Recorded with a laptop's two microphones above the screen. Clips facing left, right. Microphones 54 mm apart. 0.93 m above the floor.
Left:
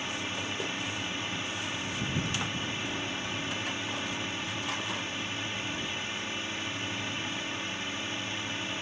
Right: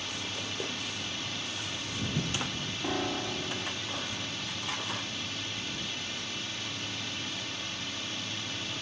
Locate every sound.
0.0 s a drone: 25° left (ahead or behind)
2.8 s a piano: 50° right (ahead or behind)